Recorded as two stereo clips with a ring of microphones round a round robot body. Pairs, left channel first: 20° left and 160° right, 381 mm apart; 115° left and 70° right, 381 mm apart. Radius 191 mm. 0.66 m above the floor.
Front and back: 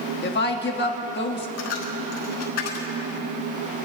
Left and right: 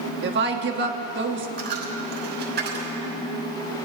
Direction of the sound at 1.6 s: 5° right.